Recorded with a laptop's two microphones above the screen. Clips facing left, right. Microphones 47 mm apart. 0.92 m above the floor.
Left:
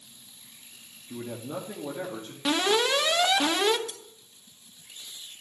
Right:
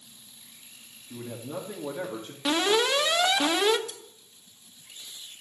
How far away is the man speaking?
About 1.9 m.